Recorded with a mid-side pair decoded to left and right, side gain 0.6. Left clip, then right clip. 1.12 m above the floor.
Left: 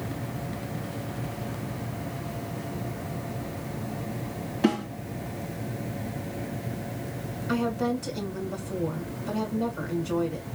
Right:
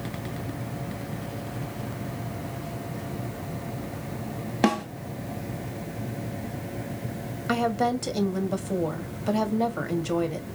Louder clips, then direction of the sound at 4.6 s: Right 2 dB; 55° right.